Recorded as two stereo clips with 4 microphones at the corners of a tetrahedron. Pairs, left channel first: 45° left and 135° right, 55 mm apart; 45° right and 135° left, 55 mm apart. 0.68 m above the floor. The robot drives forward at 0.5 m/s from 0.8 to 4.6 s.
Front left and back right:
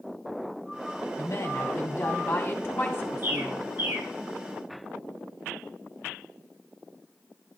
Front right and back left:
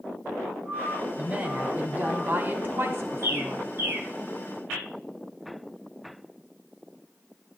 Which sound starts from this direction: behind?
A bird, at 3.2 s.